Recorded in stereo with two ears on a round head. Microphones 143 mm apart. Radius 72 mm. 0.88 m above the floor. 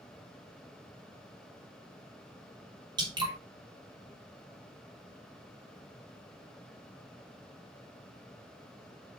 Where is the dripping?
30° right (ahead or behind), 3 m.